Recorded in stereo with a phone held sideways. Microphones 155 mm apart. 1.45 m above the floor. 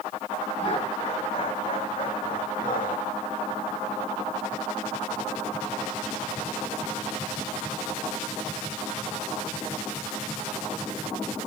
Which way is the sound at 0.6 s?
50° left (ahead or behind).